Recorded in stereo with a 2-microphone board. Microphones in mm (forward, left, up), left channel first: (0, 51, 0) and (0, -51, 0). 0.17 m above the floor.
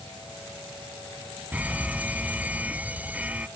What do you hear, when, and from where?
1.5 s a fire alarm: 15° right (ahead or behind)